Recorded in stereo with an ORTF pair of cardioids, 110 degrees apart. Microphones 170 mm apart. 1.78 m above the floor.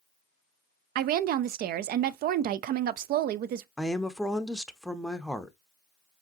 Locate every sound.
0.9 s a woman speaking: 65° right, 0.5 m
3.8 s a woman speaking: straight ahead, 0.6 m